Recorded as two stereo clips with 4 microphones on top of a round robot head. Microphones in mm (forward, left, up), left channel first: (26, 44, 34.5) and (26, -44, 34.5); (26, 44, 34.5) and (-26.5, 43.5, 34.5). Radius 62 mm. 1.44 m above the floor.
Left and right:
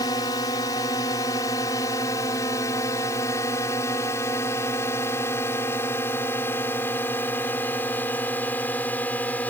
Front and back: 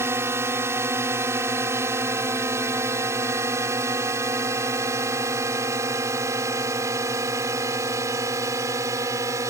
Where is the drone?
145° left; by 9.5 s 165° left.